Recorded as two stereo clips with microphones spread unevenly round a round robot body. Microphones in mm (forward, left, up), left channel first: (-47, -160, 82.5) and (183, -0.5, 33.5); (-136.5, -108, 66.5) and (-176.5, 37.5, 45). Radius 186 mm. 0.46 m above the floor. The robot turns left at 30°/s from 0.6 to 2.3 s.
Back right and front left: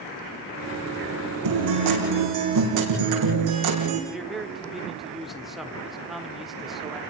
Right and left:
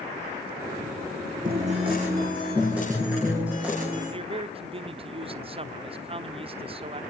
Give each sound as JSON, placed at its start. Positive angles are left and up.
{"t": 1.4, "sound": "a guitar", "azimuth_deg": 45, "distance_m": 6.5}
{"t": 4.1, "sound": "a man speaking", "azimuth_deg": 115, "distance_m": 1.1}